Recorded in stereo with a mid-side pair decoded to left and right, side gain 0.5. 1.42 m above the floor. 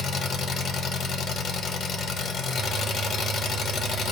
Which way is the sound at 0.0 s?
55° left.